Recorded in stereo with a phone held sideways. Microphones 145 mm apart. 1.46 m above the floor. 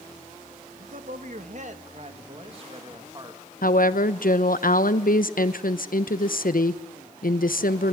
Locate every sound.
0.8 s a man speaking: 70° right (ahead or behind), 2.5 m; by 3.4 s 25° right (ahead or behind), 2.5 m
3.6 s a woman speaking: 75° left (ahead or behind), 1.0 m